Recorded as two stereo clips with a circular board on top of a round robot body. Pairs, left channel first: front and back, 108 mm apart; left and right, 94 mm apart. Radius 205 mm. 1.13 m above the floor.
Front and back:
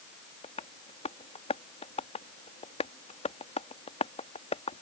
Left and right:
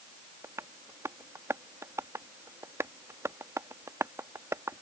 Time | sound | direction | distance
0.4 | tapping | 30° right | ?